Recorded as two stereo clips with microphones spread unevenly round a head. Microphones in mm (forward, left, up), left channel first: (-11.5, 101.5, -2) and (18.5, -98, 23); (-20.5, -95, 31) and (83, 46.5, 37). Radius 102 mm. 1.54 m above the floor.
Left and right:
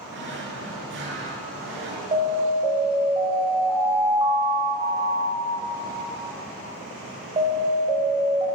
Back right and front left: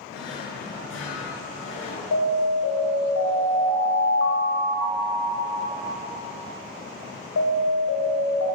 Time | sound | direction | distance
0.1 | a drawer | 115° right | 7.5 m
2.1 | an alarm | 145° right | 6 m